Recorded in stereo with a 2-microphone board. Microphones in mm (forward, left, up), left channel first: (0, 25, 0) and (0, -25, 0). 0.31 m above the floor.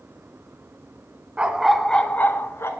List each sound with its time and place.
1.4 s a dog barking: 20° right (ahead or behind), 1.0 m; by 2.7 s 55° left (ahead or behind), 1.3 m